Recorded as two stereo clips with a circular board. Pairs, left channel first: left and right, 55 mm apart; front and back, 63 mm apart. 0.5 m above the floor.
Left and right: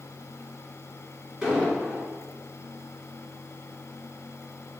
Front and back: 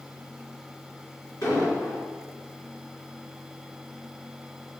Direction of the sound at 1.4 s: 5° right.